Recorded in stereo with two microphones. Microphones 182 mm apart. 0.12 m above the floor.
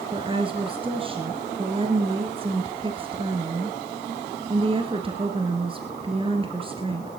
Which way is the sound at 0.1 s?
30° right (ahead or behind).